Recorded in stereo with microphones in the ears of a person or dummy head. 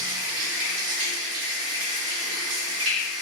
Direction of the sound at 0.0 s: 65° right (ahead or behind).